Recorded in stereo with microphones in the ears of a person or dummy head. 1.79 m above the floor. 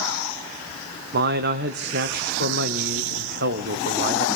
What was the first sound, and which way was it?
A man speaking, 55° right (ahead or behind).